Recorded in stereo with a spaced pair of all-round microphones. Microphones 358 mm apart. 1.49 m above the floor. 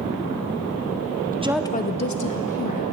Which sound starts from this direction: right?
A woman speaking, at 1.3 s.